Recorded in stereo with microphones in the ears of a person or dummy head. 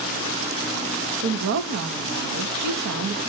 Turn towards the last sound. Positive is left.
turn(degrees=-70)  # may be behind; listen again after turning